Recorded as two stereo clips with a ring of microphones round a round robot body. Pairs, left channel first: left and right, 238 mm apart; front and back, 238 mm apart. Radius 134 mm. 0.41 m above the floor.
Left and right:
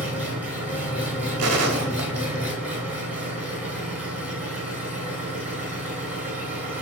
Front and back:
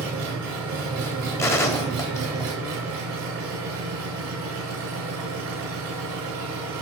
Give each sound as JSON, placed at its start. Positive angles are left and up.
{"t": 0.0, "sound": "an engine running", "azimuth_deg": -175, "distance_m": 2.5}
{"t": 1.4, "sound": "a gunshot", "azimuth_deg": -80, "distance_m": 1.3}